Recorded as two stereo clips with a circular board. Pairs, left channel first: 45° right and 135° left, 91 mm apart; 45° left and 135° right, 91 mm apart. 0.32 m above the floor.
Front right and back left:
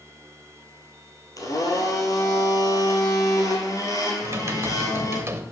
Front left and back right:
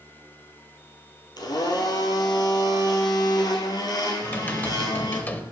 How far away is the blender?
About 1.7 m.